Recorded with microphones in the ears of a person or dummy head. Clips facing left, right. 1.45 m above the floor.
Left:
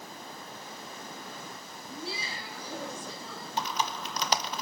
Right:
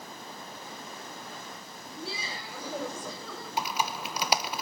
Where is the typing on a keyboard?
5° right (ahead or behind), 0.9 m.